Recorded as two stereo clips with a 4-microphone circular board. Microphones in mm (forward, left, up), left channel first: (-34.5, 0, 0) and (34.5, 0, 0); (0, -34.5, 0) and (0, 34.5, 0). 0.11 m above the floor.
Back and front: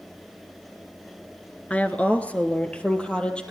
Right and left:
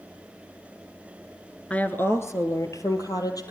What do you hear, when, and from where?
1.7 s a woman speaking: 135° right, 1.5 m; by 3.5 s 105° right, 3.5 m